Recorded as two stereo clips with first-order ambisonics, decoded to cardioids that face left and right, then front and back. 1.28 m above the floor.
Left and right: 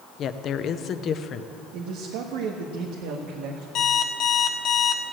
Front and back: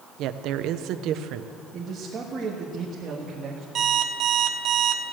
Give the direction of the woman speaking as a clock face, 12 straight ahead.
7 o'clock.